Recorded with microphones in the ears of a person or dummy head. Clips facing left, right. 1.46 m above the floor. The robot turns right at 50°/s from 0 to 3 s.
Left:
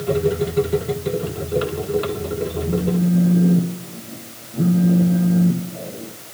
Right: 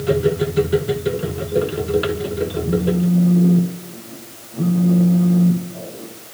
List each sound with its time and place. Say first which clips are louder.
2.6 s a phone buzzing: right 1 dB; 10° right (ahead or behind), 0.7 m; by 6.1 s 10° left (ahead or behind), 0.7 m